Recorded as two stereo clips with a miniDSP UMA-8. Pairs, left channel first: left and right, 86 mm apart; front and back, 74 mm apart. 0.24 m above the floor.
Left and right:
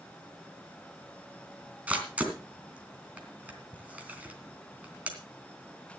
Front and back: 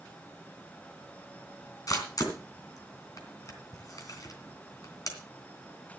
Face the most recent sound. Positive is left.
turn(degrees=-20)